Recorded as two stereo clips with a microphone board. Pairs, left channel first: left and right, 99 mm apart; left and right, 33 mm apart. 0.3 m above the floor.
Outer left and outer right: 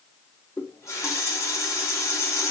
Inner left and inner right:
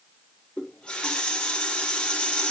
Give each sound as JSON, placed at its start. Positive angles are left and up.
{"t": 0.6, "sound": "a running tap", "side_deg": 30, "distance_m": 1.8}